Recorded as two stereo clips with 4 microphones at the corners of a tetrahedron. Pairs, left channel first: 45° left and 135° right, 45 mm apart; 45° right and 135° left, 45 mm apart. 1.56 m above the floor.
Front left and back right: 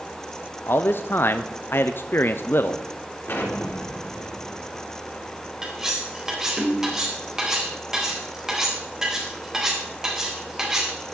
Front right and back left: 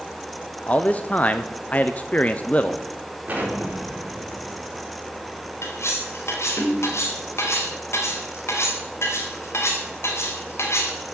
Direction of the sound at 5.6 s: 60° right.